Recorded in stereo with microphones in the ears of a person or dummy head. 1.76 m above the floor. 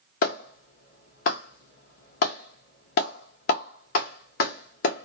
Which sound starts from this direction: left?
A clap, at 0.2 s.